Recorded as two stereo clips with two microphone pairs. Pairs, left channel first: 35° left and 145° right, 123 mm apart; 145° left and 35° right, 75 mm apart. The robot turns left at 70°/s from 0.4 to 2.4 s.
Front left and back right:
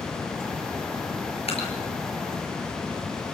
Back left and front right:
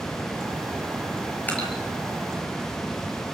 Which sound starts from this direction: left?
Dripping, at 1.5 s.